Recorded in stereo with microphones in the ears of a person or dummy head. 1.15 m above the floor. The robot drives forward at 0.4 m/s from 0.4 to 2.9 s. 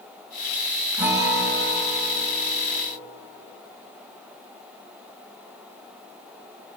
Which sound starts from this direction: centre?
A guitar, at 1.0 s.